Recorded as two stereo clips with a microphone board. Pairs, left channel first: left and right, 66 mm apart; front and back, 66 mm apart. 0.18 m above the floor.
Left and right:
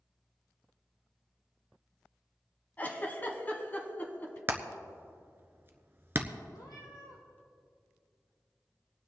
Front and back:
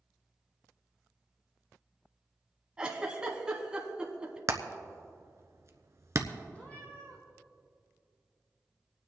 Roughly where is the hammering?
Behind right.